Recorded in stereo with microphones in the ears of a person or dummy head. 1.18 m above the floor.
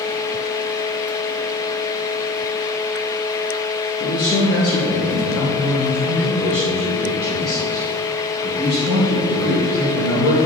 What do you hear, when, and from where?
4.0 s a man speaking: 50° left (ahead or behind), 1.4 m; by 10.4 s 10° right (ahead or behind), 4.5 m